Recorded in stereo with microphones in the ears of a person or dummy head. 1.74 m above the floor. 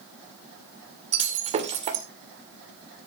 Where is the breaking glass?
30° right (ahead or behind), 2.5 m.